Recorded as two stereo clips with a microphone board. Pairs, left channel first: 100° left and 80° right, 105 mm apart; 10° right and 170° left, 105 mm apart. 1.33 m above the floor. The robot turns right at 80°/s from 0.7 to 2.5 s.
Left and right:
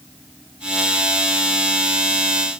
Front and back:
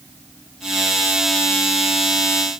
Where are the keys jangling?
I don't hear keys jangling.